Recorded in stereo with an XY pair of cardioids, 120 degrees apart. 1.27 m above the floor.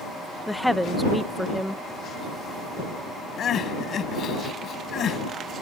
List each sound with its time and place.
0.5 s a woman speaking: straight ahead
3.4 s crying: 50° left